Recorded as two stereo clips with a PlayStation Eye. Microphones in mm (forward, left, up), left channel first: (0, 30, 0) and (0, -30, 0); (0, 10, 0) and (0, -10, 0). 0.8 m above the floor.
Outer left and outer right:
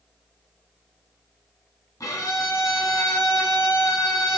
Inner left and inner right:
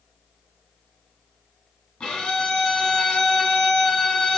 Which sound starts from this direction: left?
A violin, at 2.0 s.